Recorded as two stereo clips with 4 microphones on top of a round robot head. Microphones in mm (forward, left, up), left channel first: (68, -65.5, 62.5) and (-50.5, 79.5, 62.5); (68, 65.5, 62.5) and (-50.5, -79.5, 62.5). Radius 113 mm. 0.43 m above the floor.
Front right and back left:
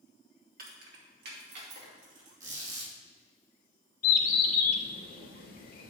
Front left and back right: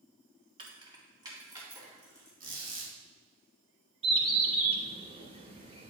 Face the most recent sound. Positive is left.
turn(degrees=-75)